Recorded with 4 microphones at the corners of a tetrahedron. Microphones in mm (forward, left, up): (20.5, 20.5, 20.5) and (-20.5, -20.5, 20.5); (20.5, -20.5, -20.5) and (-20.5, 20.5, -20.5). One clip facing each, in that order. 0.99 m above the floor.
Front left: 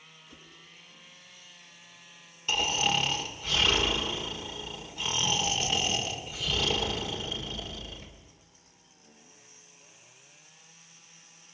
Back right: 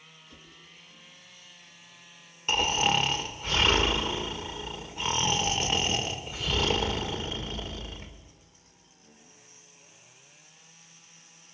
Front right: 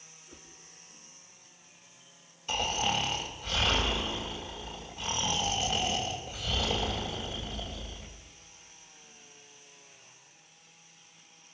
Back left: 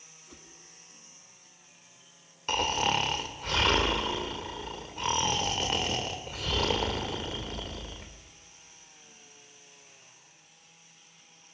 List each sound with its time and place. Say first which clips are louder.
0.3 s a whoosh: front left 1 dB, back left 1 dB; 125° left, 4 m
2.5 s snoring: back right 3 dB, back left 3 dB; 170° left, 2.5 m